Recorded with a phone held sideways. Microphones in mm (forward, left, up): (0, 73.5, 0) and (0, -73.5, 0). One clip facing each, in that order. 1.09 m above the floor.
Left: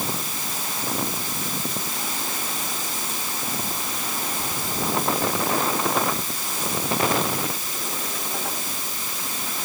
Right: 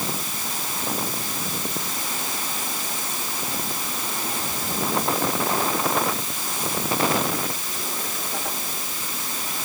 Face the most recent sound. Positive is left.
No sound to turn to.